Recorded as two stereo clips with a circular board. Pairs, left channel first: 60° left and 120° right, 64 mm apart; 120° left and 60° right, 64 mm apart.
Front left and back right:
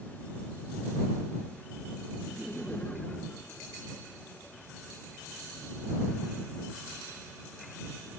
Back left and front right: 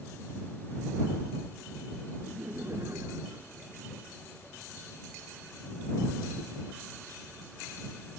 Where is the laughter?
15° right; by 4.6 s 5° left.